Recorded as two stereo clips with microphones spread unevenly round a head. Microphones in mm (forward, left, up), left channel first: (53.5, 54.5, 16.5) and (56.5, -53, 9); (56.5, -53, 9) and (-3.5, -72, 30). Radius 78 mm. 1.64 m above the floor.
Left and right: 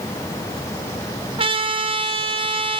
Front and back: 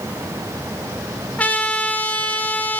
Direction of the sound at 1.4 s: 50° right.